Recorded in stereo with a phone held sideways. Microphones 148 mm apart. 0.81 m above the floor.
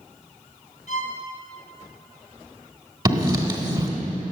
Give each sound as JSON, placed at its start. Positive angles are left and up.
{"t": 0.9, "sound": "a violin", "side_deg": 55, "distance_m": 2.0}
{"t": 3.0, "sound": "writing", "side_deg": -30, "distance_m": 2.0}